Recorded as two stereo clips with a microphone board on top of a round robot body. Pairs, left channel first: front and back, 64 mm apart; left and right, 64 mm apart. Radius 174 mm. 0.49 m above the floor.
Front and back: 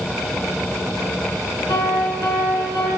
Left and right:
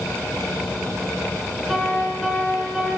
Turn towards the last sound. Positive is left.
turn(degrees=0)